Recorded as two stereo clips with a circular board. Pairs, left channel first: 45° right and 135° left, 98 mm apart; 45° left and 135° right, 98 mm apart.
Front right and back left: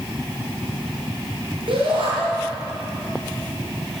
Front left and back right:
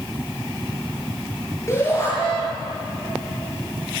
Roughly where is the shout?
Left.